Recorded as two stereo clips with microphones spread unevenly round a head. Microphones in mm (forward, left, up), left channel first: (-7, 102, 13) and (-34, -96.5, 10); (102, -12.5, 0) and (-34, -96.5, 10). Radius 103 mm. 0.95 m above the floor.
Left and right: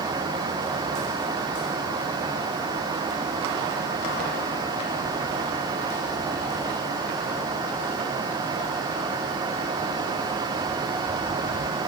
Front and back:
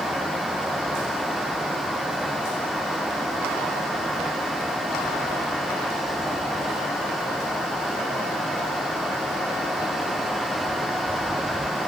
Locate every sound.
Only background noise.